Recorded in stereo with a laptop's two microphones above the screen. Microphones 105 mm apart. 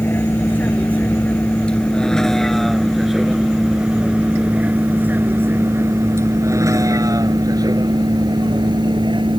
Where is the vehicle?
20° left (ahead or behind); by 9.4 s 50° right (ahead or behind).